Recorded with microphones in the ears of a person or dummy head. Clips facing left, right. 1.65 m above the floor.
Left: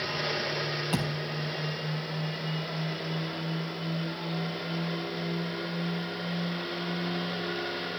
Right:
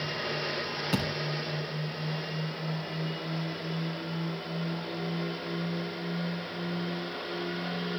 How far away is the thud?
About 4.5 m.